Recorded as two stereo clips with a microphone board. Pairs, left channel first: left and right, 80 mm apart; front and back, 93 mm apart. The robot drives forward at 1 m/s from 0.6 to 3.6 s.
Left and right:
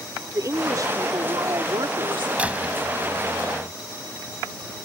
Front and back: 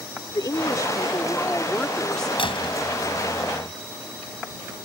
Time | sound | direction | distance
0.3 | a woman speaking | 45° right | ?
2.4 | a door slam | 15° right | ?